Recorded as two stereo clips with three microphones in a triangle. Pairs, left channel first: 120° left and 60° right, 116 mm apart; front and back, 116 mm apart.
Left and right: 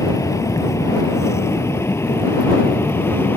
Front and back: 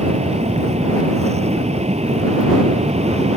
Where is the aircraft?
Straight behind; by 3.4 s 170° right.